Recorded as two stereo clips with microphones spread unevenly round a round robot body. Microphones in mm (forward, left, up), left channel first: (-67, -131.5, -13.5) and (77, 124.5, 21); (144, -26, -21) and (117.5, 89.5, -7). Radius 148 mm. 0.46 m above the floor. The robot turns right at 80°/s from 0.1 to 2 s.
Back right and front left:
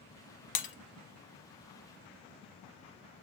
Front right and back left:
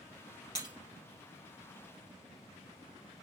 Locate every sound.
0.6 s breaking glass: 155° right, 0.9 m; by 0.7 s 135° right, 0.9 m